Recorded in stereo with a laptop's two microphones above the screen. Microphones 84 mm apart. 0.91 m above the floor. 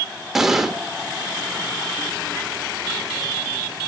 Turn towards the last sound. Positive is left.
turn(degrees=-5)  # may be behind; listen again after turning